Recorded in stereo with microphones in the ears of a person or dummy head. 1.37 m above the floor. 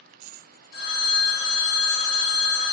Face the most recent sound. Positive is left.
turn(degrees=55)  # may be behind; listen again after turning